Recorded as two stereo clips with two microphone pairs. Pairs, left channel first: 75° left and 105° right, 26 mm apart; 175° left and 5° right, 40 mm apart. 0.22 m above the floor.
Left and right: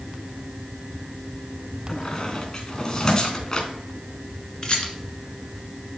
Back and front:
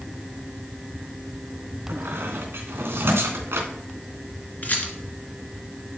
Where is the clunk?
No clunk in this recording.